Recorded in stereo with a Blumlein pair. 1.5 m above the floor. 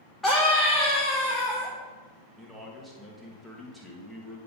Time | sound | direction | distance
0.2 | a scream | 10° left | 1.2 m
2.4 | a man speaking | straight ahead | 1.7 m